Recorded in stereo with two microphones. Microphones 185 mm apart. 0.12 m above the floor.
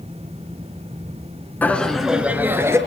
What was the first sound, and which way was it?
Laughter, 10° left (ahead or behind).